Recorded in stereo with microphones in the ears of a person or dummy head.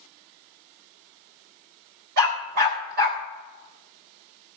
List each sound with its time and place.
2.2 s a dog barking: 60° right (ahead or behind), 3.5 m; by 3.2 s 55° right (ahead or behind), 3 m